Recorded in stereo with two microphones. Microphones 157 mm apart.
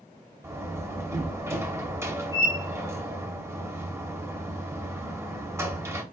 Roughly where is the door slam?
Centre.